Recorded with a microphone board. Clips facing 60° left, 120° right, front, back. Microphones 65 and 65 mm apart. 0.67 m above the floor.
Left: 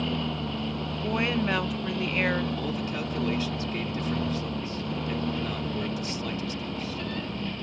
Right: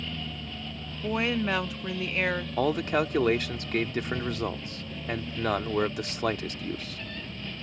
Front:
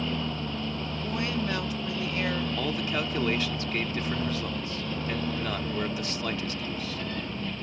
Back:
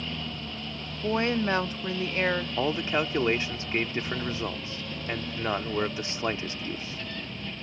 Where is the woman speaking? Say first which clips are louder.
Even, back 6 dB; 150° left.